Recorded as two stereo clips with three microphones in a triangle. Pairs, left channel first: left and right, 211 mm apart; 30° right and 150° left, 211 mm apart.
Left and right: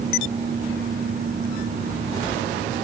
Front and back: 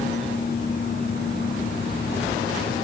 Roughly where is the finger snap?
I don't hear a finger snap.